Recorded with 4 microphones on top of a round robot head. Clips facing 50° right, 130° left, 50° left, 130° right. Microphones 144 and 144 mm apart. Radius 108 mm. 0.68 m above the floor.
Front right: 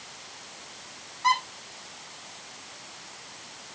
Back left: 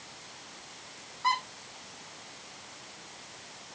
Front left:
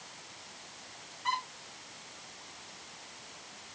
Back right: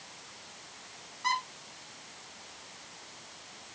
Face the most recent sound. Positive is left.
turn(degrees=-120)